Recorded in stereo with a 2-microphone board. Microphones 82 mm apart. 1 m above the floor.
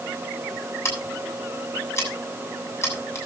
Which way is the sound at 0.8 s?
35° left (ahead or behind).